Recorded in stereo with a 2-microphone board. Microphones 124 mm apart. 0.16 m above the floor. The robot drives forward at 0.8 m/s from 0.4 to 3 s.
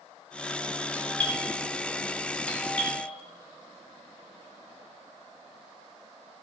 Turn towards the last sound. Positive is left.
turn(degrees=10)  # may be behind; listen again after turning